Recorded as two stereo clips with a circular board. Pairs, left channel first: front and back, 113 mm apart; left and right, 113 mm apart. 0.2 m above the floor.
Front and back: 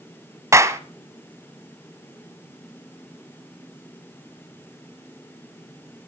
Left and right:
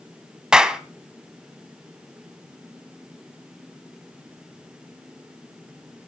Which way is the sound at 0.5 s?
165° right.